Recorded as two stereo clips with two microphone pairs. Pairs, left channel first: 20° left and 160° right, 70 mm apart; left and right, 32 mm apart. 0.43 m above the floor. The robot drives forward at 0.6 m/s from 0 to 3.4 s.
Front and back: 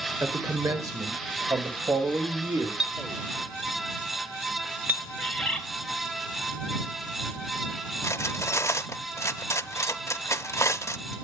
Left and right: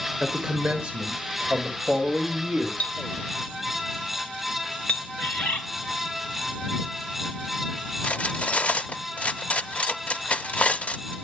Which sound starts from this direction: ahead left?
Cutlery clinking, at 8.0 s.